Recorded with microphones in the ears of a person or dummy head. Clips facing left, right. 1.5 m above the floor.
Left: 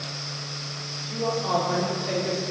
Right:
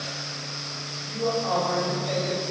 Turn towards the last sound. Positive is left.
turn(degrees=50)  # may be behind; listen again after turning